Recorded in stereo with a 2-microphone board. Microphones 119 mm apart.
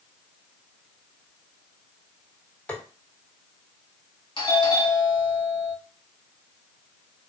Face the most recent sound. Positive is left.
turn(degrees=40)  # may be behind; listen again after turning